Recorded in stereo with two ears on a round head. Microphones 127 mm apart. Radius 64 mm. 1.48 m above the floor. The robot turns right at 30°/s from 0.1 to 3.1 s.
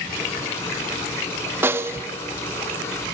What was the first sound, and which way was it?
A snare drum, 15° right (ahead or behind).